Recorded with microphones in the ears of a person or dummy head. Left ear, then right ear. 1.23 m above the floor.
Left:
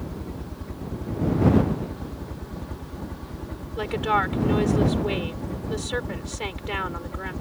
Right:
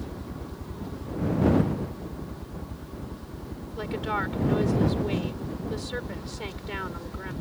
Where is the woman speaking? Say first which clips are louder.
Left 6 dB; 25° left (ahead or behind).